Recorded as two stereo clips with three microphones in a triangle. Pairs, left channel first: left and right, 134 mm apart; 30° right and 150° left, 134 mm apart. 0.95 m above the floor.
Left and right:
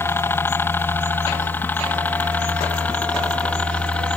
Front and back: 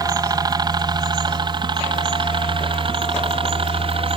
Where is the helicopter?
140° left; by 4.2 s 165° left.